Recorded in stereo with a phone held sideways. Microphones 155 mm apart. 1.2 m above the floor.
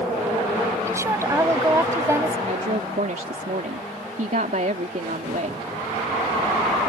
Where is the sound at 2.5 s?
60° right (ahead or behind).